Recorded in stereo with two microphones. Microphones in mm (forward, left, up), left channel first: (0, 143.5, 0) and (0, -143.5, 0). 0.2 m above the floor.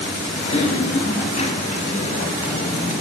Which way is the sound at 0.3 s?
25° left (ahead or behind).